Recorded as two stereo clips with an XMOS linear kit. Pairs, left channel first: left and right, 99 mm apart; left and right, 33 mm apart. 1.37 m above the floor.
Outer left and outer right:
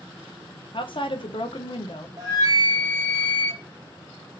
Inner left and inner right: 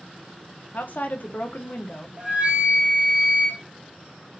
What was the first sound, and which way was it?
A woman speaking, 60° left (ahead or behind).